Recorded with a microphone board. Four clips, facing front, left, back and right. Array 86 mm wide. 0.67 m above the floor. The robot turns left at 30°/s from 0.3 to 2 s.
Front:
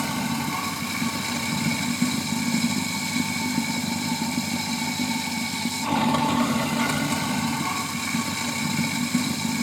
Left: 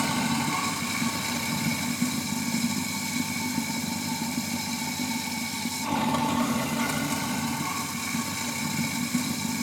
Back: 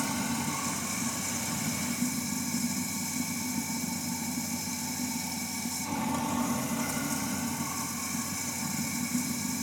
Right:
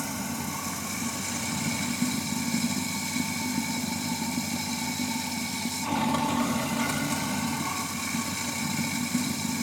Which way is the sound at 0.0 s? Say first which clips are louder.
Left 7 dB, front 5 dB; 55° left.